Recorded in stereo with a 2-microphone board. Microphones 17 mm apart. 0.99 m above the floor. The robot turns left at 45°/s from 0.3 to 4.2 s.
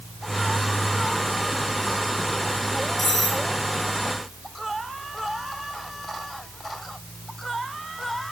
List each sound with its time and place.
3.0 s cutlery clinking: 15° left (ahead or behind), 3.5 m; by 3.4 s 35° left (ahead or behind), 3.5 m